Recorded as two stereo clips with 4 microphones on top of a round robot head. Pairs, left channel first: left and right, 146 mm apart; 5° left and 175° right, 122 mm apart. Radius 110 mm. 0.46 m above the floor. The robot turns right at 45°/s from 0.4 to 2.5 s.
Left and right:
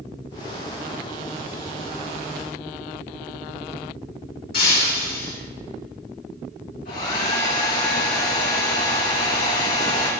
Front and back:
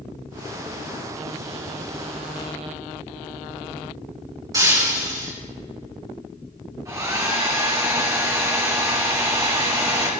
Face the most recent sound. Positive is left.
turn(degrees=120)